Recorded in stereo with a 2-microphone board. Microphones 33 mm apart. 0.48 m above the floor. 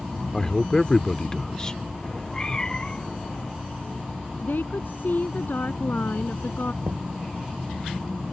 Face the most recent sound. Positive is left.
turn(degrees=-85)